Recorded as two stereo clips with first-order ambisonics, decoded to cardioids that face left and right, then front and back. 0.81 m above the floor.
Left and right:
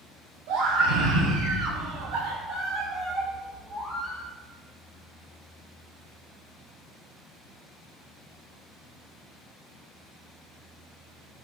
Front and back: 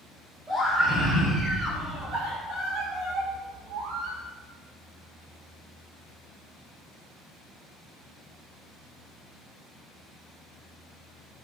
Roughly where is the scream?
Right.